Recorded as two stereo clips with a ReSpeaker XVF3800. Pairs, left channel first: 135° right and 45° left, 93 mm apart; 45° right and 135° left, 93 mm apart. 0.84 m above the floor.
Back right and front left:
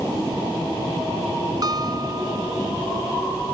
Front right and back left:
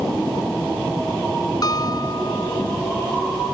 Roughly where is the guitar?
Ahead.